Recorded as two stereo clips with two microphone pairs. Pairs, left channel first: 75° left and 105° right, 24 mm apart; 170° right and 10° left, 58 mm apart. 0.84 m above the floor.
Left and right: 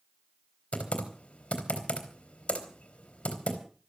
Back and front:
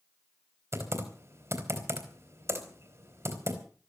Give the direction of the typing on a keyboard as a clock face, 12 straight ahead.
10 o'clock.